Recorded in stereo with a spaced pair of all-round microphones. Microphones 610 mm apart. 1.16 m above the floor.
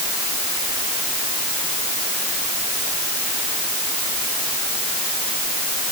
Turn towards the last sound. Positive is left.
No sound to turn to.